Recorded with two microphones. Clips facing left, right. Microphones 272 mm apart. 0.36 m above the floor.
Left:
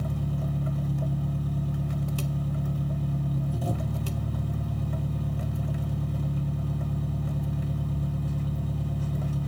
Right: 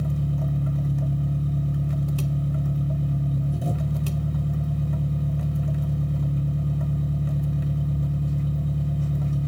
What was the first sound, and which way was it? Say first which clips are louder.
An engine running: right 4 dB; 25° right (ahead or behind).